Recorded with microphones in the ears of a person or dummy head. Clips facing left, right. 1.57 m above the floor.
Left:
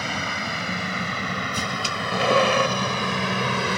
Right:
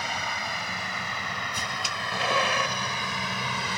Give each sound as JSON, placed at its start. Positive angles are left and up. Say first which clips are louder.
{"t": 0.0, "sound": "a vehicle", "louder": "left 4 dB", "side_deg": 70}